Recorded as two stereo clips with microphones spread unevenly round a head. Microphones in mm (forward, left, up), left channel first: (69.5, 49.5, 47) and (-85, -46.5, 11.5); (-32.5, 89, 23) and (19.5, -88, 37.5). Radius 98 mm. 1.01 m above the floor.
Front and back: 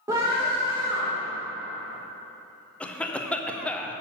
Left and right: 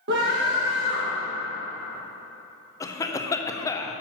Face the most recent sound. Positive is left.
turn(degrees=130)